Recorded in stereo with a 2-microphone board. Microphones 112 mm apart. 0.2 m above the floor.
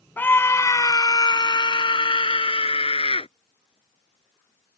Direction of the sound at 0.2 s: 15° left (ahead or behind).